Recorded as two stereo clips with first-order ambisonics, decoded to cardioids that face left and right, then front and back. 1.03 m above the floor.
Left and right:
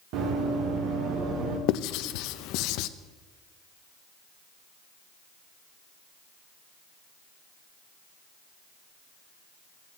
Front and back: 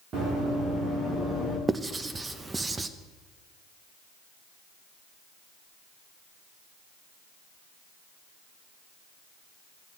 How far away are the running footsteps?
About 4.5 m.